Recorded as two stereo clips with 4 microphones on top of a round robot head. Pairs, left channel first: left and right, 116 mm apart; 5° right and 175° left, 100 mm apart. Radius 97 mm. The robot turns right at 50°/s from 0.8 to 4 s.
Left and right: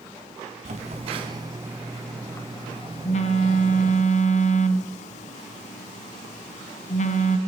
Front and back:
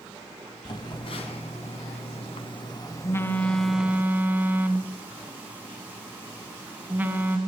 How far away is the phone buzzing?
About 2 m.